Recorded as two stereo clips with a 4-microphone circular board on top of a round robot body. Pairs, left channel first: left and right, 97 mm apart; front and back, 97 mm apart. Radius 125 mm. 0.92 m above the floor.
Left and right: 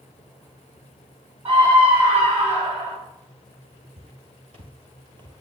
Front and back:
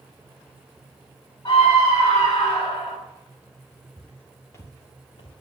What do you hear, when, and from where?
1.4 s a scream: 55° right, 8 m; by 3.0 s 50° right, 8.5 m
4.0 s footsteps: 75° right, 1.6 m; by 5.4 s 40° right, 1.6 m